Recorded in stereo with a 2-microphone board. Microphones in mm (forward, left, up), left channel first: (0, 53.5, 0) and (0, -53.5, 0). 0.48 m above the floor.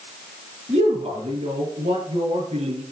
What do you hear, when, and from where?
0.7 s a man speaking: 85° right, 6 m